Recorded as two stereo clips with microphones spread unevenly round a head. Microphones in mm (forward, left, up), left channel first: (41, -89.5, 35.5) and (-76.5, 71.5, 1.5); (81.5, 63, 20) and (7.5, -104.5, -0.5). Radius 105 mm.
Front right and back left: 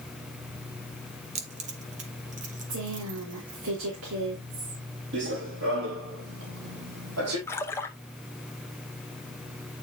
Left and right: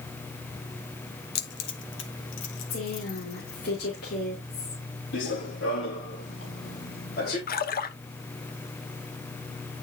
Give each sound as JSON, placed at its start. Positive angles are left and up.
{"t": 1.4, "sound": "keys jangling", "azimuth_deg": 60, "distance_m": 1.1}
{"t": 2.7, "sound": "a woman speaking", "azimuth_deg": 110, "distance_m": 3.0}
{"t": 5.1, "sound": "running footsteps", "azimuth_deg": 85, "distance_m": 4.0}
{"t": 7.5, "sound": "a splash", "azimuth_deg": 25, "distance_m": 1.1}